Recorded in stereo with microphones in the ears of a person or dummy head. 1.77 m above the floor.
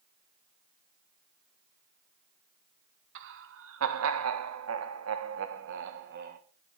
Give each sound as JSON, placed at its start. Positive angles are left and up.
{"t": 3.1, "sound": "laughter", "side_deg": -75, "distance_m": 2.0}